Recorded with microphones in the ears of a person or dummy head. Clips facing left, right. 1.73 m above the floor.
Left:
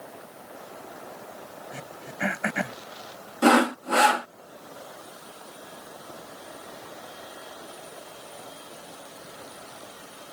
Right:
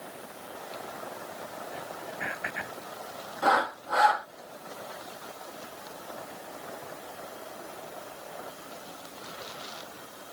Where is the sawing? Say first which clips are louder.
Left 8 dB; 40° left (ahead or behind).